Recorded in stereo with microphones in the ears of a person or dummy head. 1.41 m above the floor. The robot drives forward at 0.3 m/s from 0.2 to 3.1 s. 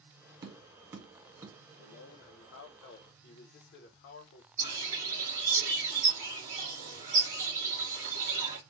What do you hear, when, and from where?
0.4 s tapping: 20° right (ahead or behind), 0.5 m; by 1.6 s 10° right (ahead or behind), 0.8 m
1.8 s a man speaking: 85° left, 1.0 m; by 4.5 s 65° left (ahead or behind), 1.1 m
4.6 s a bird: 35° right (ahead or behind), 1.3 m